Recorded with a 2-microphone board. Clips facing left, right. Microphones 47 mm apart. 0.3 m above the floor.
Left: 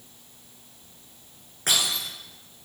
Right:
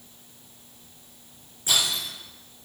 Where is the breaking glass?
65° left (ahead or behind), 8.5 m.